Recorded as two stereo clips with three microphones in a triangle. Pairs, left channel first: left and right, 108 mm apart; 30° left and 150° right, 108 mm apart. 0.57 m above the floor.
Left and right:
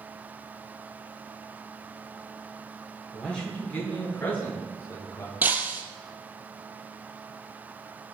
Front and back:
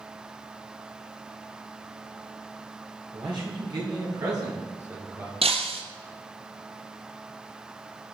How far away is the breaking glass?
About 2 m.